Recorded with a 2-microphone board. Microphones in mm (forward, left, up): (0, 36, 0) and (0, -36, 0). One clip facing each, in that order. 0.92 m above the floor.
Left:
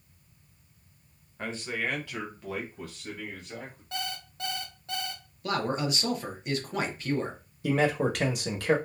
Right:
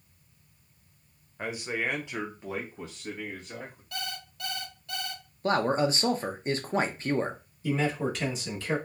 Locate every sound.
1.4 s a man speaking: 10° right (ahead or behind), 0.7 m; by 3.8 s 15° right (ahead or behind), 1.4 m
3.9 s an alarm clock: 30° left (ahead or behind), 0.9 m
5.4 s a man speaking: 35° right (ahead or behind), 0.6 m
7.6 s a man speaking: 65° left (ahead or behind), 0.8 m